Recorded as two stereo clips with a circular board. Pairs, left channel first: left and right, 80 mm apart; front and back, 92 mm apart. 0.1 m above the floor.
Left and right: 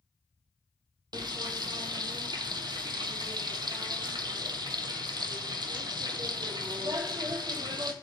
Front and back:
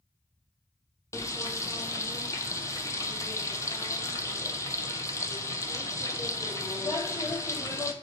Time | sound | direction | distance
1.1 | frying | 55° right | 0.6 m